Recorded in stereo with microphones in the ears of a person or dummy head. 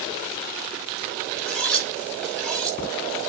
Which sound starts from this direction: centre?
Cutlery clinking, at 1.4 s.